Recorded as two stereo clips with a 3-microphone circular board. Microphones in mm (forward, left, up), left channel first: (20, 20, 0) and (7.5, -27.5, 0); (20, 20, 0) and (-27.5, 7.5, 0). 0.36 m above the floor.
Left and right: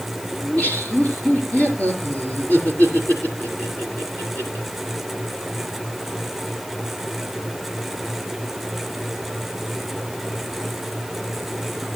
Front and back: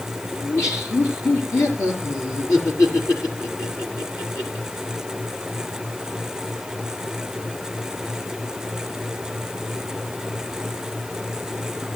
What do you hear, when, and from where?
0.4 s laughter: 15° left, 6.5 m